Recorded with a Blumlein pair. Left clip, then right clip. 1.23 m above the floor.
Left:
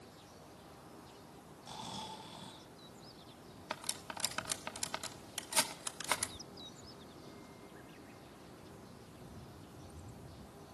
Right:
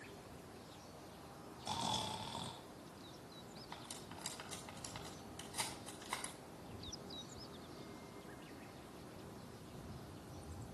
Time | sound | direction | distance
1.6 | snoring | 70° right | 3 m
3.7 | cutlery clinking | 45° left | 1.5 m